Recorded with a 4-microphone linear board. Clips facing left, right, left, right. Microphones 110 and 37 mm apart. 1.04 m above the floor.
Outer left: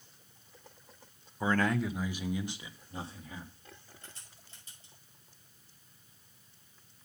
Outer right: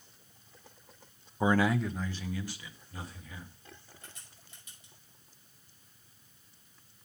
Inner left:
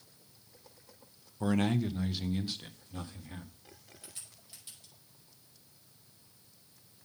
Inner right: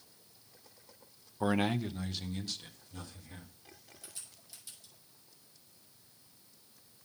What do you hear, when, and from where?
1.4 s a man speaking: 25° right (ahead or behind), 0.5 m; by 3.5 s 30° left (ahead or behind), 1.9 m
4.0 s a crack: 30° left (ahead or behind), 5.5 m